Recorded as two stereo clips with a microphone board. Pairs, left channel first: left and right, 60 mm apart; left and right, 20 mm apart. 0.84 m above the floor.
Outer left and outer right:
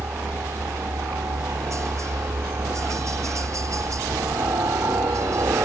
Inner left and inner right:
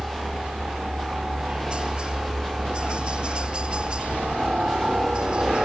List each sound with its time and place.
0.0 s a helicopter: 50° right (ahead or behind); by 5.7 s 55° right (ahead or behind)